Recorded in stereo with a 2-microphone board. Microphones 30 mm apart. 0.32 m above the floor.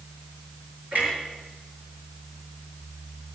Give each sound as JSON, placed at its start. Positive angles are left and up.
{"t": 0.9, "sound": "a clunk", "side_deg": -55, "distance_m": 6.0}